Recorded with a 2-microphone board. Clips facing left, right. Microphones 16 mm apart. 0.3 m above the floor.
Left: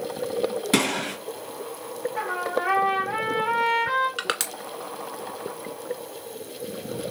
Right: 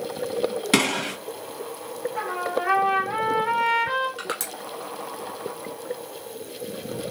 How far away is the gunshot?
About 2 m.